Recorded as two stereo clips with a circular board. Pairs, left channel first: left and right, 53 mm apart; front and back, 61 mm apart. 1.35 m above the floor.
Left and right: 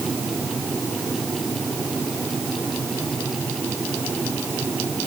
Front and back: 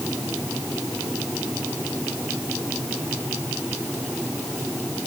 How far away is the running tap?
No running tap in this recording.